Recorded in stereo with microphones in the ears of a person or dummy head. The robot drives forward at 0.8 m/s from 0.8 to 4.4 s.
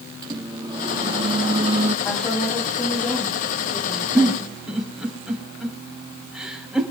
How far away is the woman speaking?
About 3.5 m.